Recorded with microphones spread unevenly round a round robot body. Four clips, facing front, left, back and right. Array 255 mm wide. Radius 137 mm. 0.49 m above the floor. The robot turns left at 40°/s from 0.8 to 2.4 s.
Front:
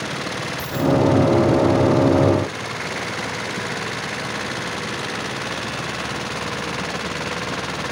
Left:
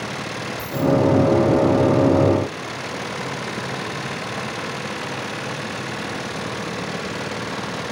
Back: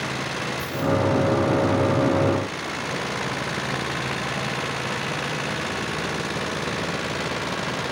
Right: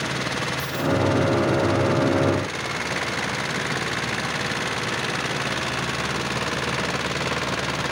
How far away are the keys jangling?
About 5.5 m.